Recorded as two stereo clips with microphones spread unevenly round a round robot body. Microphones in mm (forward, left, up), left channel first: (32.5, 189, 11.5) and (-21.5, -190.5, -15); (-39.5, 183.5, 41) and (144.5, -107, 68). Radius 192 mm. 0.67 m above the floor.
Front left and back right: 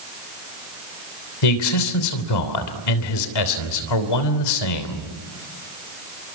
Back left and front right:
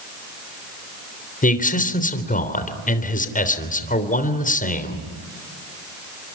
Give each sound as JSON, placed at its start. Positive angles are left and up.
{"t": 1.4, "sound": "a man speaking", "azimuth_deg": 55, "distance_m": 3.5}